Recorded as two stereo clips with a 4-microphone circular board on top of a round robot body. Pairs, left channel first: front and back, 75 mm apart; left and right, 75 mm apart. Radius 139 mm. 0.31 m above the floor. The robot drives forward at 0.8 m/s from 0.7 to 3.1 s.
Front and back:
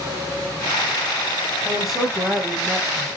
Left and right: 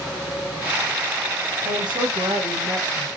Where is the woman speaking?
90° right, 3 m; by 3.1 s 110° right, 3.5 m.